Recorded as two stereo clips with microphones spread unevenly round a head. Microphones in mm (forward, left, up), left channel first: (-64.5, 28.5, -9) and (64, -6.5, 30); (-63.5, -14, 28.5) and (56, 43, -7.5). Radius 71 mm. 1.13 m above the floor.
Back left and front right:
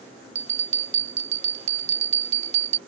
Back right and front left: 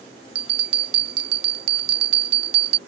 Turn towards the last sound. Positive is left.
turn(degrees=30)